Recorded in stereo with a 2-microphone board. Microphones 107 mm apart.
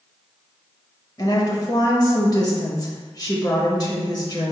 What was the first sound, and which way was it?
A woman speaking, 35° left (ahead or behind).